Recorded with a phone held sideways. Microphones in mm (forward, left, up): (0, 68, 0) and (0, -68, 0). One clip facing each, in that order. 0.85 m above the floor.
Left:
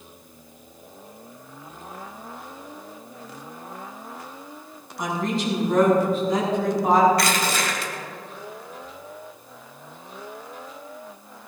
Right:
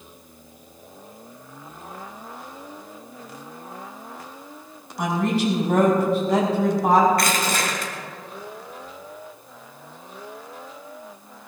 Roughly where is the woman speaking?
Right.